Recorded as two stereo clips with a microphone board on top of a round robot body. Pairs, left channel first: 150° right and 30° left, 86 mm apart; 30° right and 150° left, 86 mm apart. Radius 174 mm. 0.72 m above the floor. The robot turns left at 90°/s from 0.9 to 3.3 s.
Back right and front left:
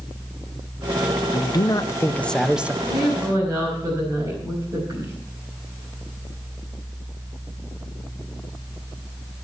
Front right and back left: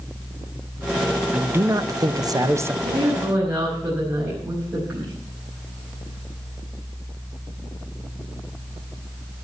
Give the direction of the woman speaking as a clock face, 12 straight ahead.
8 o'clock.